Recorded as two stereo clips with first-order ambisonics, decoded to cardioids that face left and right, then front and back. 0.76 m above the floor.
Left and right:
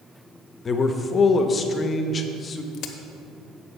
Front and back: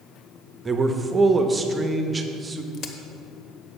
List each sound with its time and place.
0.7 s a man speaking: 125° left, 0.5 m
2.7 s a crack: 45° left, 0.8 m